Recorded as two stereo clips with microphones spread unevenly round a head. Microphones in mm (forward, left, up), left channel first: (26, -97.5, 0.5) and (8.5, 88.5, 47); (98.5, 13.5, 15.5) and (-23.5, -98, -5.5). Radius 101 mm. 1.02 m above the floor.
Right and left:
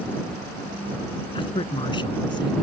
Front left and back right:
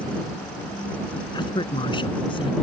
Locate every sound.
1.3 s a man speaking: 20° right; by 2.5 s 15° right